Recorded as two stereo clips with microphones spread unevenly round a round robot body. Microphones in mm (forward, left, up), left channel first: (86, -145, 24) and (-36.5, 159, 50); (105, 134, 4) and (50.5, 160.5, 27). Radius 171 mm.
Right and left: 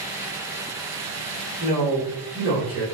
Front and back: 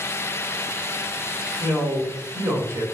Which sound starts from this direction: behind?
A man speaking, at 1.6 s.